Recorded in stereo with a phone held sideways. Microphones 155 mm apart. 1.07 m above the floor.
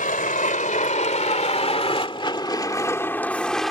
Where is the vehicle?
65° left (ahead or behind); by 3.7 s centre (ahead or behind).